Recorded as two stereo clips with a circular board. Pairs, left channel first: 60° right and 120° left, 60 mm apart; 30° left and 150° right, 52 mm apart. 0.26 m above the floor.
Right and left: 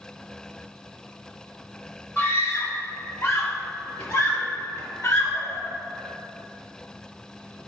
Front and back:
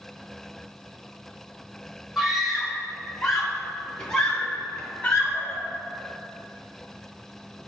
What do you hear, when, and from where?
2.2 s a scream: 70° right, 1.5 m; by 5.6 s 40° right, 3 m